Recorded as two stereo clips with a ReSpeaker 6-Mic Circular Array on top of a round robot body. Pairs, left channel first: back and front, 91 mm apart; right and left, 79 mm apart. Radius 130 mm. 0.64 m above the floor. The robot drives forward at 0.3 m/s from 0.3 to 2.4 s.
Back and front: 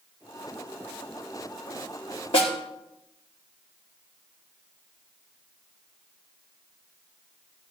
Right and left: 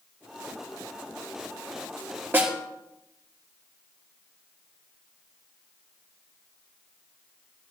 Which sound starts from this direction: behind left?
A snare drum, at 2.3 s.